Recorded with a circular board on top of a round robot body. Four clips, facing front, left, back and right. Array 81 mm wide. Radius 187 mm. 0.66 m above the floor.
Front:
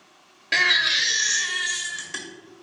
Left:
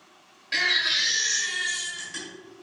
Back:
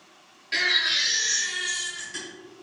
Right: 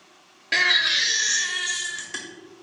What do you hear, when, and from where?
0.5 s a baby crying: 45° right, 0.7 m